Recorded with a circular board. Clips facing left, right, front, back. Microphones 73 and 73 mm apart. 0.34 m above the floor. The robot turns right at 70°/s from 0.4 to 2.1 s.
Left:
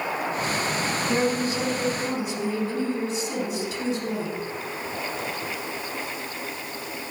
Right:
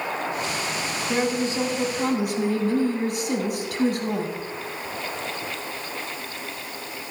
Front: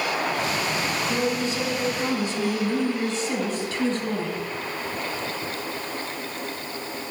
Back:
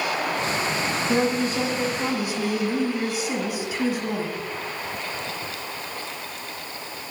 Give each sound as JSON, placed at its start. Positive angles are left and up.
{"t": 1.1, "sound": "a woman speaking", "azimuth_deg": -175, "distance_m": 2.0}